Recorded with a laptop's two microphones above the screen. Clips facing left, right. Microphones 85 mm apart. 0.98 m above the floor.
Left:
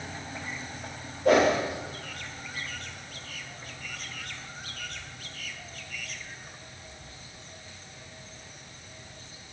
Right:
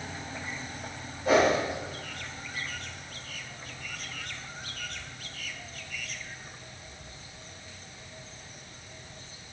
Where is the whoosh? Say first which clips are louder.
Left 2 dB; 80° left, 1.7 m.